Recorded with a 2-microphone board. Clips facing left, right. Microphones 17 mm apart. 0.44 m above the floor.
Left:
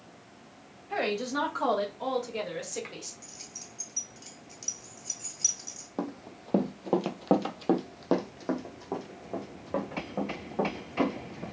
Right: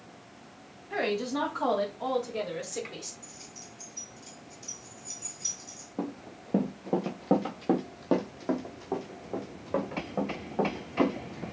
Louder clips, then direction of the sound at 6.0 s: Even; 55° left (ahead or behind).